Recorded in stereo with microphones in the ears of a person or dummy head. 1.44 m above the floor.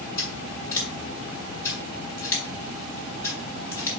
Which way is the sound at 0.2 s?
20° left (ahead or behind).